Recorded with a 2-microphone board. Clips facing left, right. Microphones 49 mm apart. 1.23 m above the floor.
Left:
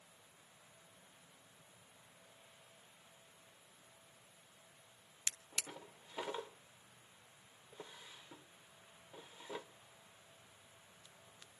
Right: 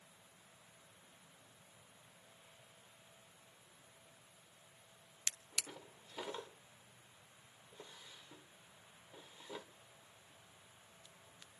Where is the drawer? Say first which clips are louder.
Even; 15° left (ahead or behind), 0.9 m.